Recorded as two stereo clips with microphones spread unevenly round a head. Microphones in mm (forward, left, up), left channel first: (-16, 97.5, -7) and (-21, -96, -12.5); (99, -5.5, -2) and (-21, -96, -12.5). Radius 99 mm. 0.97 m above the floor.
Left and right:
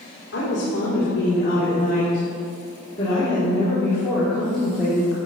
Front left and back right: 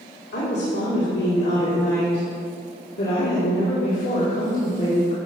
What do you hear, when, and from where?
0.3 s a woman speaking: 55° left, 3 m; by 5.2 s 5° right, 2.5 m